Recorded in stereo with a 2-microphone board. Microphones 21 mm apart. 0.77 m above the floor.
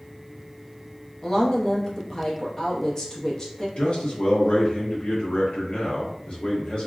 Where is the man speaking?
55° left (ahead or behind), 0.7 m.